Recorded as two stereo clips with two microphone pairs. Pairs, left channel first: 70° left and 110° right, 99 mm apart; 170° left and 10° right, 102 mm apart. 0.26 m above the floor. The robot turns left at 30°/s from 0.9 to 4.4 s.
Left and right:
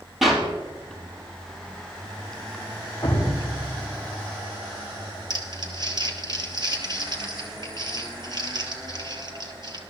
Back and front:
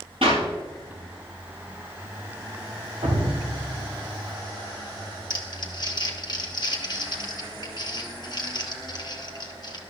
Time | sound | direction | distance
0.2 | a clap | 20° right | 5 m
3.0 | dripping | 5° left | 5.5 m
5.3 | crumpling | 150° right | 1.9 m